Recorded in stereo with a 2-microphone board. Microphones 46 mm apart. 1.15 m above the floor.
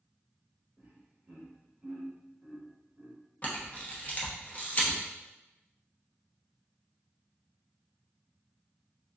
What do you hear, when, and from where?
0.8 s laughter: 25° right (ahead or behind), 1.1 m
3.4 s a camera shutter: 35° left (ahead or behind), 0.8 m